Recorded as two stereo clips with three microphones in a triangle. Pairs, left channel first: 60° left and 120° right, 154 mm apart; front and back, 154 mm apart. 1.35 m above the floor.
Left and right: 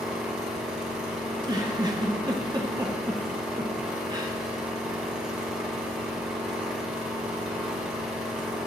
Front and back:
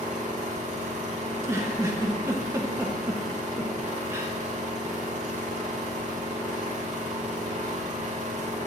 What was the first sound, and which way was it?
An engine running, 155° left.